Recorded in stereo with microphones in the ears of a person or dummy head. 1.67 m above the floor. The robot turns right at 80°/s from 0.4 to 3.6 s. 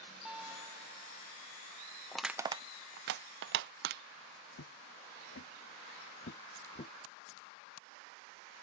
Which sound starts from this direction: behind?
A guitar, at 0.2 s.